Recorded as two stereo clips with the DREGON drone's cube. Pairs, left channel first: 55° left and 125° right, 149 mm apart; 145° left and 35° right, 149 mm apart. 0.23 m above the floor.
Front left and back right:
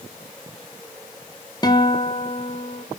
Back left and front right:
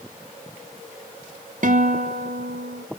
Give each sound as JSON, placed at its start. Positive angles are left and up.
{"t": 1.6, "sound": "a guitar", "azimuth_deg": -5, "distance_m": 1.0}